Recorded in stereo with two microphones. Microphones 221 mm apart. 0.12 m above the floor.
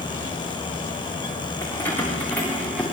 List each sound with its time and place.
1.6 s keys jangling: 10° left (ahead or behind), 9 m; by 2.8 s 5° left (ahead or behind), 9.5 m